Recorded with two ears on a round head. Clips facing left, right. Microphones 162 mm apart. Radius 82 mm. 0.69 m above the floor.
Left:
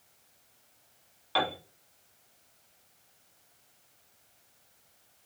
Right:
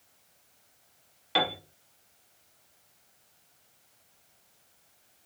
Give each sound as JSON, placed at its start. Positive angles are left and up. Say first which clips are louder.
{"t": 1.4, "sound": "a piano", "louder": "right 1 dB", "side_deg": -20, "distance_m": 0.8}